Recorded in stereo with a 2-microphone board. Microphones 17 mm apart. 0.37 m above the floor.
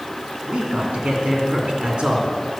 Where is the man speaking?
70° right (ahead or behind), 3 m.